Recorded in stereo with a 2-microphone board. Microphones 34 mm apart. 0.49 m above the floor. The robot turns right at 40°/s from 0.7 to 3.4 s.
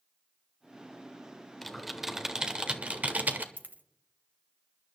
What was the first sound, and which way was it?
Typing on a keyboard, 5° left (ahead or behind).